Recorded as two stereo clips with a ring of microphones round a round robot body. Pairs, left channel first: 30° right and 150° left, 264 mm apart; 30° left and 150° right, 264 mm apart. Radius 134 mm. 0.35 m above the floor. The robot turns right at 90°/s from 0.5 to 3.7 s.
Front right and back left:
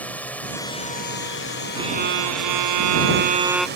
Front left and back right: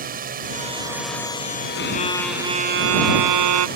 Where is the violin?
70° left; by 3.7 s 115° right.